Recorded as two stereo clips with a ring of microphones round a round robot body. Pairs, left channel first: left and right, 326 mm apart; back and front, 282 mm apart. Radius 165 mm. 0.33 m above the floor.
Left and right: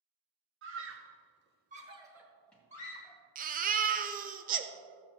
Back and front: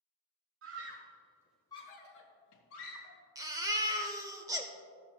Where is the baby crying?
65° right, 0.6 m.